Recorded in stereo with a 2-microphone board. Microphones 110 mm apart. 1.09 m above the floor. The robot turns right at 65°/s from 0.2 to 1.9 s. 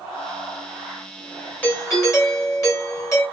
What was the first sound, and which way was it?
A doorbell, 15° left (ahead or behind).